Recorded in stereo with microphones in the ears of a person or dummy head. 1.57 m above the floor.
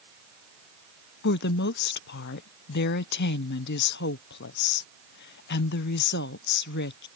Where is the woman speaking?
60° left (ahead or behind).